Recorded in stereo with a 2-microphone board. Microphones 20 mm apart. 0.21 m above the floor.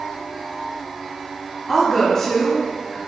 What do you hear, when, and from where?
1.7 s a woman speaking: 30° left (ahead or behind), 1.3 m